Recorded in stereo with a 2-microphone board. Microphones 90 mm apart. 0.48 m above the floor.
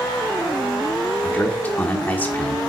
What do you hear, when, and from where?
1.2 s a man speaking: 20° left (ahead or behind), 1.1 m